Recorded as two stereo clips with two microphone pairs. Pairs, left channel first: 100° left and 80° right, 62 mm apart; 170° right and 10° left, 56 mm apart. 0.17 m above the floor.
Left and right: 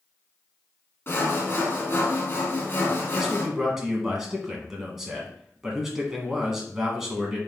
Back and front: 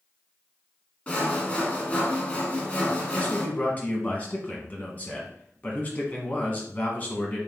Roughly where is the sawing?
Behind left.